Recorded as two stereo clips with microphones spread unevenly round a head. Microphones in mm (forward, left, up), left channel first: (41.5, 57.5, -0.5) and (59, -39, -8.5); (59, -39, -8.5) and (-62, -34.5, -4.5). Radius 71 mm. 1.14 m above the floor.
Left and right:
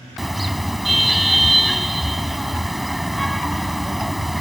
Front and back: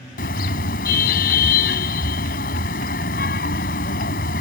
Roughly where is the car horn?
Ahead.